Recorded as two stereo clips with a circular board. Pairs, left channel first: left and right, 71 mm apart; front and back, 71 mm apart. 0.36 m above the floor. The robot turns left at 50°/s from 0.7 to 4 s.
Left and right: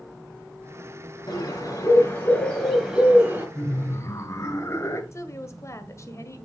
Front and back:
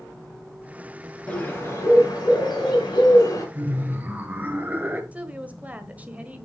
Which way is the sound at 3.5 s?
145° left.